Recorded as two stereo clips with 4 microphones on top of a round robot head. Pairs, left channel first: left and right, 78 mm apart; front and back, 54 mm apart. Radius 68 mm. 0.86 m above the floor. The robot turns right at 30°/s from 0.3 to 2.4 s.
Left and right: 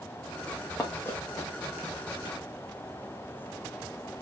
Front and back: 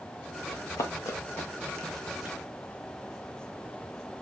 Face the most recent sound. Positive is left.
turn(degrees=105)